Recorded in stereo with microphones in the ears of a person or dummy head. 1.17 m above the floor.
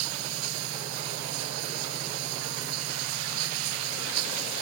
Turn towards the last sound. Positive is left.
turn(degrees=-85)